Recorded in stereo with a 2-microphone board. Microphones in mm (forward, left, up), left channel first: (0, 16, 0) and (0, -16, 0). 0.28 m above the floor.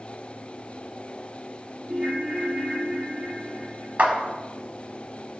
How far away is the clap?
About 1.8 m.